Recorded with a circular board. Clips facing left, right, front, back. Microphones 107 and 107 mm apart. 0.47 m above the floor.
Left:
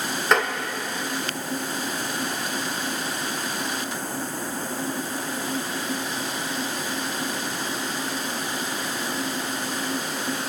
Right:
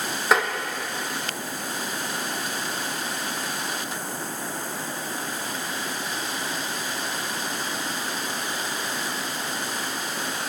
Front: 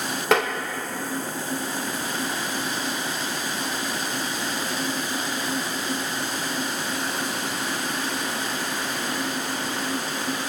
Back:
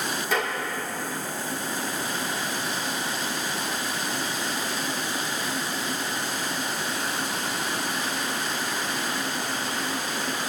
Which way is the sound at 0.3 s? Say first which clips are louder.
Even, front 7 dB; 5° right.